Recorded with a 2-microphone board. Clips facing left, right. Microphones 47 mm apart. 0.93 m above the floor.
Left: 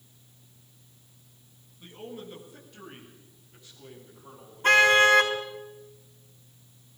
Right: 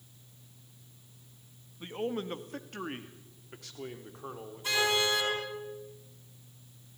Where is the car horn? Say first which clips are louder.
Left 11 dB; 55° left (ahead or behind), 4 m.